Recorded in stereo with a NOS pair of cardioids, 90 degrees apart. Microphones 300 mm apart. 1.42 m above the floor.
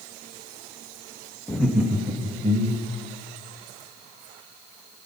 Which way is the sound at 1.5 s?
5° left.